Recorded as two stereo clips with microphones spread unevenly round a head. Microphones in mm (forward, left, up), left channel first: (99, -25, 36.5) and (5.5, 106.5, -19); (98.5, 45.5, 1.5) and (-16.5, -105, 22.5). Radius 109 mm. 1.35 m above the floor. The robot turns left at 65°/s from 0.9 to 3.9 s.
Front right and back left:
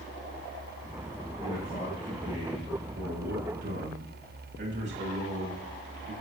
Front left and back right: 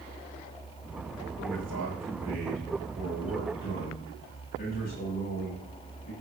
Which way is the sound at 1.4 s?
90° right.